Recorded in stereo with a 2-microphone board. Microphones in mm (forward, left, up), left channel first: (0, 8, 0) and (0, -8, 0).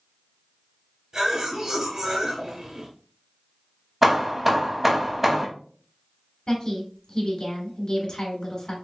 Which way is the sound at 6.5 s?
50° left (ahead or behind).